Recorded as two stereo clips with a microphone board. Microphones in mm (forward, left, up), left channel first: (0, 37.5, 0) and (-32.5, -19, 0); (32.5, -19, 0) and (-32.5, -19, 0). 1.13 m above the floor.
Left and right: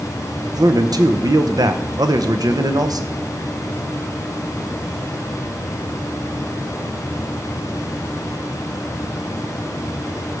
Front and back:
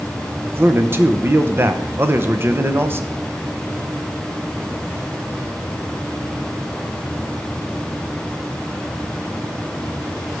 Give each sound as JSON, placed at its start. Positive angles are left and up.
{"t": 0.4, "sound": "a man speaking", "azimuth_deg": -125, "distance_m": 0.7}